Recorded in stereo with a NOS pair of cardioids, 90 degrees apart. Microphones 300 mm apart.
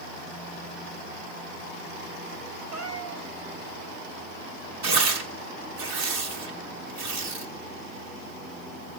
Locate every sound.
2.7 s a cat meowing: 70° right, 3 m
4.8 s tearing paper: 65° right, 2 m